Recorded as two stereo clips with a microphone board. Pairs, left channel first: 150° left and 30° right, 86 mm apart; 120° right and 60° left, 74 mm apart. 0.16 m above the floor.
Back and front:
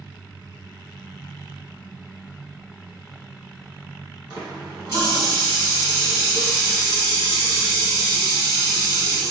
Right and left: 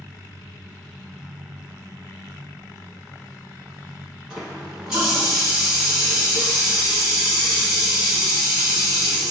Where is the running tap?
20° right, 1.5 m.